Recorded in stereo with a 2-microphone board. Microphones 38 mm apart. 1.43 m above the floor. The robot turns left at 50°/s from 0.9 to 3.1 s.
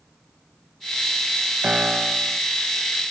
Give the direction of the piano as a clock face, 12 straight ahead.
5 o'clock.